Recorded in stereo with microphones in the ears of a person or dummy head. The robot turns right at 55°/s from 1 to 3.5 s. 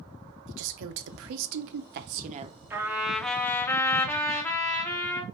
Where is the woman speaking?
110° right, 0.7 m; by 2.6 s 25° right, 0.7 m.